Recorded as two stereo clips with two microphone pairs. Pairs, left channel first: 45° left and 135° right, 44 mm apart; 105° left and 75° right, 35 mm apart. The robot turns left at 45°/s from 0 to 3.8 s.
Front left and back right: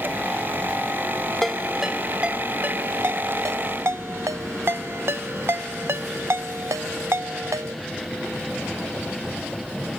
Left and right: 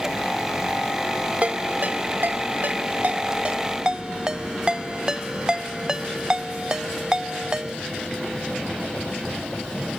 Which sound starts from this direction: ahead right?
A ringtone, at 1.4 s.